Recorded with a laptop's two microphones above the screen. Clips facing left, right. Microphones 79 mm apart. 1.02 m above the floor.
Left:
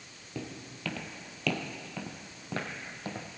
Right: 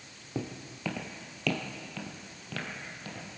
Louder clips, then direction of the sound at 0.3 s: Right 3 dB; 25° right (ahead or behind).